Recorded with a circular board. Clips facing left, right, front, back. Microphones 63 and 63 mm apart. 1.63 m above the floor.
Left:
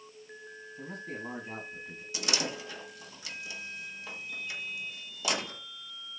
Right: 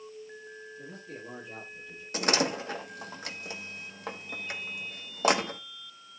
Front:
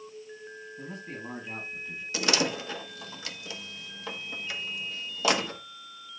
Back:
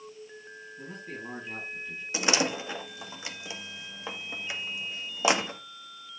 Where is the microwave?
No microwave in this recording.